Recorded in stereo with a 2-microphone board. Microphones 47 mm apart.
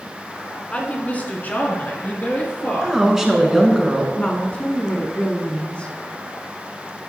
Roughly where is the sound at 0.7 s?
Left.